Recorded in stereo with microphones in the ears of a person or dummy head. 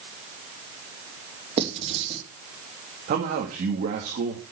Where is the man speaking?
50° right (ahead or behind), 2.5 m.